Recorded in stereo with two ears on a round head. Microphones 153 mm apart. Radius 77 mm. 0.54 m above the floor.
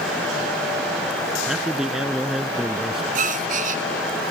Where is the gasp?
50° right (ahead or behind).